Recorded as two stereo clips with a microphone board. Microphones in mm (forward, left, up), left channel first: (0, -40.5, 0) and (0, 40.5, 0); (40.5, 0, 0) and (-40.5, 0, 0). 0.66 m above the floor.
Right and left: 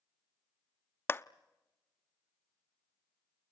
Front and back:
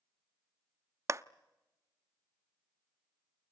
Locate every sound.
1.1 s a clap: 140° right, 0.6 m